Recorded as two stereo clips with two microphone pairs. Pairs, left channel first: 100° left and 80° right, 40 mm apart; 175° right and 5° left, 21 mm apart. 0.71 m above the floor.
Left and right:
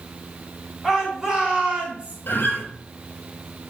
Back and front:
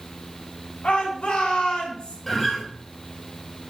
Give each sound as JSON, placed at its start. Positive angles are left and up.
{"t": 0.8, "sound": "a shout", "azimuth_deg": -155, "distance_m": 3.5}
{"t": 2.3, "sound": "a guitar", "azimuth_deg": 105, "distance_m": 2.0}